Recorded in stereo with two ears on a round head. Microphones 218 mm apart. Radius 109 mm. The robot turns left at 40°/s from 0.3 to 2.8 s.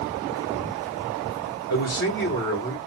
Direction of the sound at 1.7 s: 75° left.